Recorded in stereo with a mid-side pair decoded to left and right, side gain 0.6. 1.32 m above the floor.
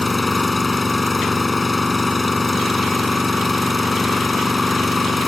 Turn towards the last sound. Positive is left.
turn(degrees=20)